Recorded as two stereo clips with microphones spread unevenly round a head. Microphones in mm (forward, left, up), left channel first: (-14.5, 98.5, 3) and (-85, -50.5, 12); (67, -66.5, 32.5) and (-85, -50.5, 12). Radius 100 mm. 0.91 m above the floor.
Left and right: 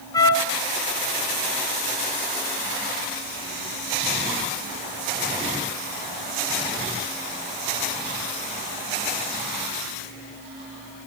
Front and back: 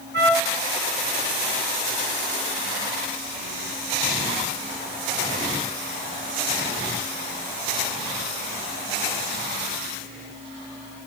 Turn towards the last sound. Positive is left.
turn(degrees=135)